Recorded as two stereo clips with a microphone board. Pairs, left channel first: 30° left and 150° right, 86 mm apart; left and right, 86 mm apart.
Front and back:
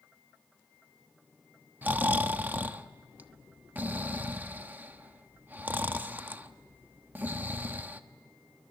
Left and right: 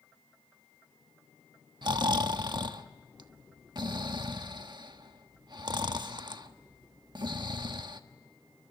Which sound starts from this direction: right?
Snoring, at 1.8 s.